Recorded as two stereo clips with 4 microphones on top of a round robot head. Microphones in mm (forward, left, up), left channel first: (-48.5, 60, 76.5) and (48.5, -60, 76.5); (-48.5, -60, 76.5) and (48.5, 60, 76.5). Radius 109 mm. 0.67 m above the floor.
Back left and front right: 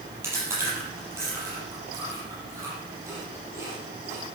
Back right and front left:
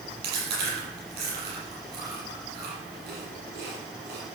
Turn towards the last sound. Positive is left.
turn(degrees=25)